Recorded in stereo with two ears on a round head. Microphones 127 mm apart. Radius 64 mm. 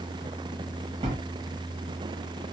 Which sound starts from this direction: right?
A bell, at 1.0 s.